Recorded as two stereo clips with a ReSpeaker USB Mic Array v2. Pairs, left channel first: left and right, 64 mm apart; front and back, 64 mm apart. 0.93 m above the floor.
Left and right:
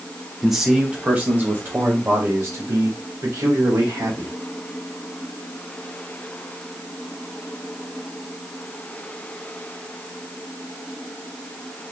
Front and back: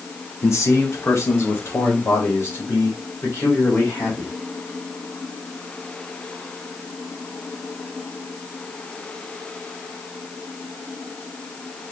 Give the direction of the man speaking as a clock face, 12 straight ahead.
12 o'clock.